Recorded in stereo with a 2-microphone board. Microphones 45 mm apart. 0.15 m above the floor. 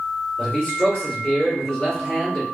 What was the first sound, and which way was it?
A man speaking, 30° left (ahead or behind).